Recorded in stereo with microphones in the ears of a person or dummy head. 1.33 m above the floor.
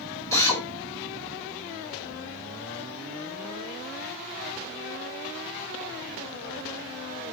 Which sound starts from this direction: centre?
A drill, at 0.3 s.